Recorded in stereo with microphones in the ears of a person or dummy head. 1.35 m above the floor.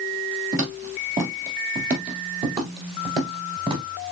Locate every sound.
0.5 s footsteps: 40° right (ahead or behind), 1.9 m; by 3.8 s 20° right (ahead or behind), 1.7 m